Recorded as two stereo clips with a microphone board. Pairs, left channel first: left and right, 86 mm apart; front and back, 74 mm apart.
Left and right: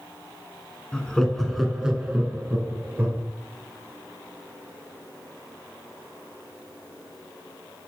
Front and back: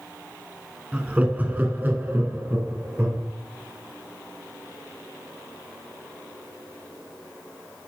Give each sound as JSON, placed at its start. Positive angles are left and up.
{"t": 0.9, "sound": "laughter", "azimuth_deg": 145, "distance_m": 1.2}